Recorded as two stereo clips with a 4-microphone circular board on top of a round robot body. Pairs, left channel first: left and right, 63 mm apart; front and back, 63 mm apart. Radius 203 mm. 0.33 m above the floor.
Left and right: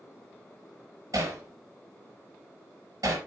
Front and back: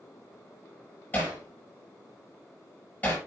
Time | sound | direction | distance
1.1 | hammering | 65° right | 6 m